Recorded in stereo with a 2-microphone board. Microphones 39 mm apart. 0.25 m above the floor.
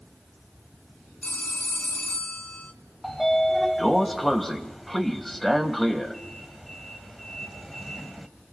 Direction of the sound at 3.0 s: 5° left (ahead or behind).